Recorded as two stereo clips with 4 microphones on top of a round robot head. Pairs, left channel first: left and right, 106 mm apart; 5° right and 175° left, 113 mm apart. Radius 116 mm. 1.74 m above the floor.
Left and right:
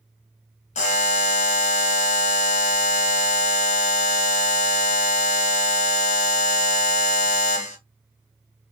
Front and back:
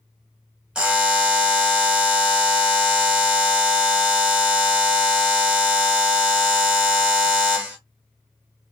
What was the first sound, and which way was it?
A buzzer, 90° left.